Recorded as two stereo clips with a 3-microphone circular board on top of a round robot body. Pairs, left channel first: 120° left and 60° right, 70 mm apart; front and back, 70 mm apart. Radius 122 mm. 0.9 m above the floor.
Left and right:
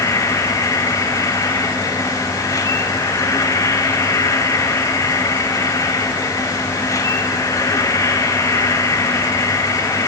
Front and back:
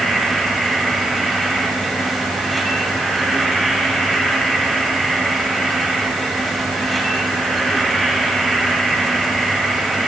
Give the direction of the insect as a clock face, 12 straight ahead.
9 o'clock.